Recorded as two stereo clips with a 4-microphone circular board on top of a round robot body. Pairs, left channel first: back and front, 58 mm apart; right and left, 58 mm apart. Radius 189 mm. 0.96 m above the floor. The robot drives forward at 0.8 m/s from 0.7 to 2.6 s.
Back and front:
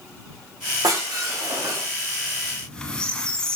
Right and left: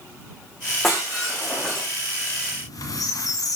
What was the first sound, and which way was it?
Breaking glass, 5° right.